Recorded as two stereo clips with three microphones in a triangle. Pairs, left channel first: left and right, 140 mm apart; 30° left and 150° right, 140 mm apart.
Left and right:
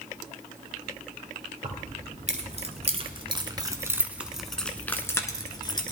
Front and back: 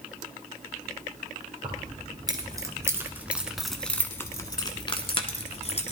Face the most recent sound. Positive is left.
turn(degrees=45)